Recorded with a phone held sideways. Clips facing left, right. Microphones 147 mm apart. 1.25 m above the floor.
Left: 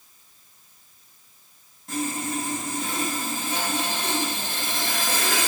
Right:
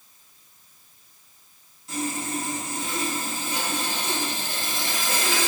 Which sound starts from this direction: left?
Sawing, at 1.9 s.